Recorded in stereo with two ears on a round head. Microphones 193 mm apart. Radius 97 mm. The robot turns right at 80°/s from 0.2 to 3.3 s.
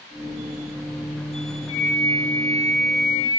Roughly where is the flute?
Ahead left.